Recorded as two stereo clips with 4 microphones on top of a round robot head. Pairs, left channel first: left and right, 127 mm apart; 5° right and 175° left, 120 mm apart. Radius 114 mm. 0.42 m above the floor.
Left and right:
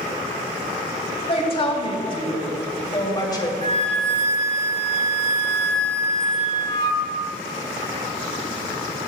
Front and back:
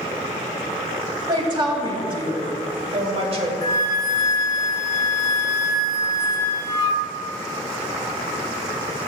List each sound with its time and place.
1.3 s a woman speaking: 125° left, 3.5 m; by 3.5 s 150° left, 3 m
3.6 s a flute: 50° left, 1.2 m